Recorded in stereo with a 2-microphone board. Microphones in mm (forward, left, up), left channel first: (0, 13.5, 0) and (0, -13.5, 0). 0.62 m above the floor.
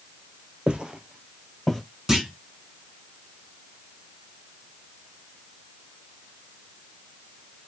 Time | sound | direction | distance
0.7 | footsteps | 40° right (ahead or behind) | 0.8 m
2.1 | a clunk | 15° right (ahead or behind) | 1.5 m